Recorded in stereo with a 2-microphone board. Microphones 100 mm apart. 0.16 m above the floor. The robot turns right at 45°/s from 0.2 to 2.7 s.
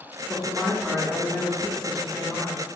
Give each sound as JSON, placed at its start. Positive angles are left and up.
{"t": 0.3, "sound": "a woman speaking", "side_deg": -10, "distance_m": 1.3}